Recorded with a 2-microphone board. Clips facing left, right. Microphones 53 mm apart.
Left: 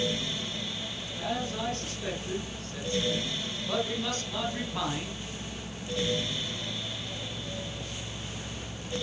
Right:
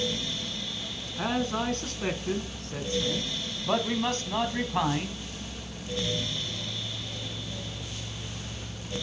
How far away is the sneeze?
I don't hear a sneeze.